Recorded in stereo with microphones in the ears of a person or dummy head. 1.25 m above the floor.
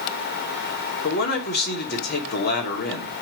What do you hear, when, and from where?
1.0 s a man speaking: 45° left (ahead or behind), 2.5 m